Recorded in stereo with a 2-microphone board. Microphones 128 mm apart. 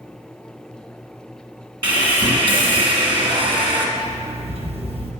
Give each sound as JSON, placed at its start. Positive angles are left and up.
{"t": 1.8, "sound": "sawing", "side_deg": -45, "distance_m": 1.5}
{"t": 4.0, "sound": "an alarm clock", "side_deg": -50, "distance_m": 0.9}